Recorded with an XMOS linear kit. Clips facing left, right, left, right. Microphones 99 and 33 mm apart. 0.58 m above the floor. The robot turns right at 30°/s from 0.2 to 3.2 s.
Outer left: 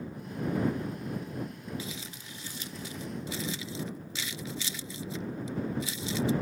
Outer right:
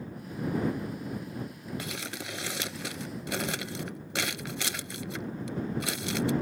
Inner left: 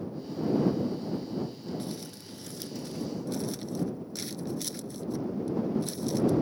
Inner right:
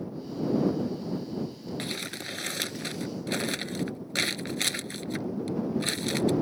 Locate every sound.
1.8 s crumpling: 65° right (ahead or behind)